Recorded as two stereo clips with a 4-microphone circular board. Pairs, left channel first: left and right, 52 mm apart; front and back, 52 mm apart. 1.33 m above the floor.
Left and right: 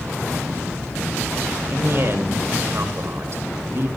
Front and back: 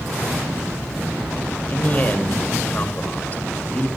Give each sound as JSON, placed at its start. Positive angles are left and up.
{"t": 1.7, "sound": "a man speaking", "azimuth_deg": -55, "distance_m": 2.5}